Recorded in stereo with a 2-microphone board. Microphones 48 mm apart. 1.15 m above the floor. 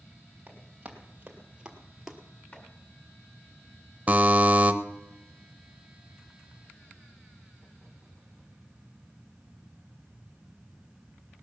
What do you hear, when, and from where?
0.5 s running footsteps: 30° right (ahead or behind), 2.5 m; by 2.2 s 5° right (ahead or behind), 1.3 m
2.5 s chopping: 35° left (ahead or behind), 2.5 m
4.1 s a buzzer: 30° right (ahead or behind), 0.8 m